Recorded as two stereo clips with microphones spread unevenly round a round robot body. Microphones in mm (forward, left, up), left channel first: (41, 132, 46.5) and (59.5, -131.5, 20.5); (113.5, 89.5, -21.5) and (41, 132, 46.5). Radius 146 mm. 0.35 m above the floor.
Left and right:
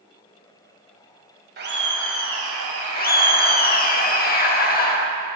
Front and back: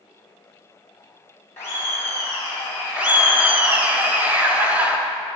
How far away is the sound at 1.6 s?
About 2.5 m.